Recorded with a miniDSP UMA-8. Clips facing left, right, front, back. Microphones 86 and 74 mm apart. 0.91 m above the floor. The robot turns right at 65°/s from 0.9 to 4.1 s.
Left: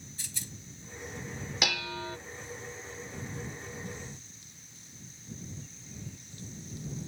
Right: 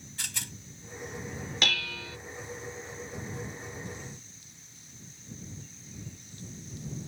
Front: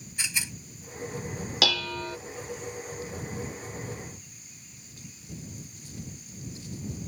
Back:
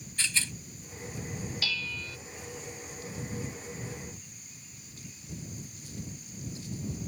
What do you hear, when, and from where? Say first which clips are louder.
0.2 s a rattle: right 7 dB, back 1 dB; 75° right
1.6 s dishes clattering: left 1 dB, front 13 dB; 10° left; by 2.2 s 45° left